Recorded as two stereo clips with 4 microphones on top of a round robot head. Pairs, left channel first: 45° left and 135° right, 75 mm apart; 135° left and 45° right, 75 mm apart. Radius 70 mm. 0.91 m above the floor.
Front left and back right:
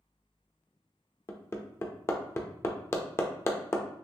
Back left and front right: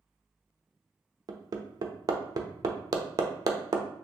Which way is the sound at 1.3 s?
10° right.